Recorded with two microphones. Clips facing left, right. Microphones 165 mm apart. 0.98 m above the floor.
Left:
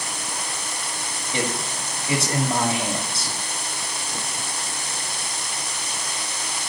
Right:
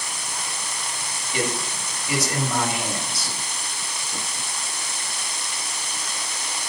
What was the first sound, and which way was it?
A man speaking, 30° left (ahead or behind).